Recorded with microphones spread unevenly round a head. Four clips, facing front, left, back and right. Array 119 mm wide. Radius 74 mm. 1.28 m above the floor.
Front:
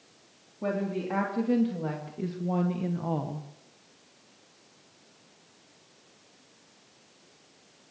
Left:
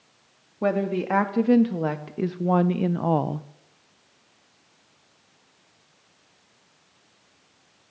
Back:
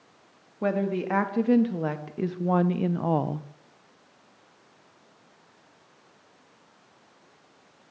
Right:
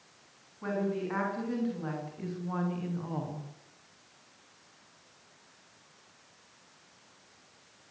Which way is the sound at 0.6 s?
115° left.